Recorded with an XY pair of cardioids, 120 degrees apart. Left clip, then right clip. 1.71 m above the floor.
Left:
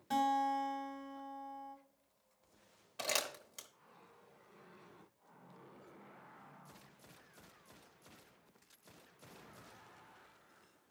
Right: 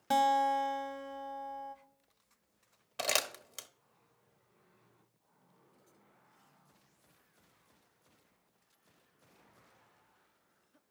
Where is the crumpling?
40° right, 0.9 m.